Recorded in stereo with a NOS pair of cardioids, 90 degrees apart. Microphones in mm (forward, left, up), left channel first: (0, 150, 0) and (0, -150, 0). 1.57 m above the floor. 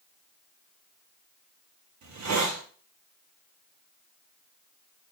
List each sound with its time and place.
2.0 s a hiss: 65° right, 1.1 m